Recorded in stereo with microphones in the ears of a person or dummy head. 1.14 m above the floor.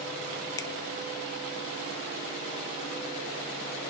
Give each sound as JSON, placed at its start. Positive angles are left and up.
{"t": 0.6, "sound": "a finger snap", "side_deg": 20, "distance_m": 0.6}